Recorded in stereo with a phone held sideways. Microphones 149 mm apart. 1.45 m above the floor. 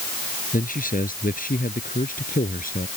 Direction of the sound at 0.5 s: 65° left (ahead or behind).